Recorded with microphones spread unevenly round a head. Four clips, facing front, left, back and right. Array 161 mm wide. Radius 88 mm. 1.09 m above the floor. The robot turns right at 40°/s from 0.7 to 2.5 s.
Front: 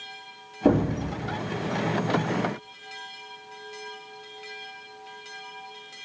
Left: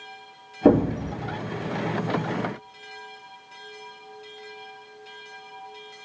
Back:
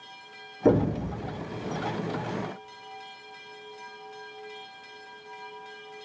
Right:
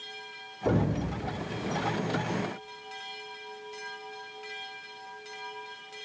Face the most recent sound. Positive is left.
turn(degrees=160)